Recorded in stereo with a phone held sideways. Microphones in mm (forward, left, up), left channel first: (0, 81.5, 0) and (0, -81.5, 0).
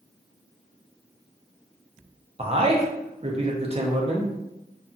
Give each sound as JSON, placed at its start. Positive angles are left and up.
{"t": 2.4, "sound": "a man speaking", "side_deg": -40, "distance_m": 0.7}